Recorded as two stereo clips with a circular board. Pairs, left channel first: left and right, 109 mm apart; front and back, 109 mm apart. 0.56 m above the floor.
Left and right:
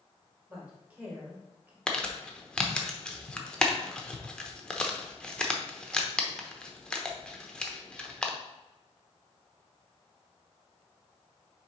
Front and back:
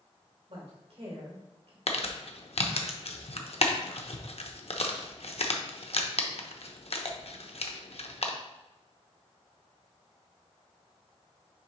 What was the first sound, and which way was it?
A woman speaking, 165° right.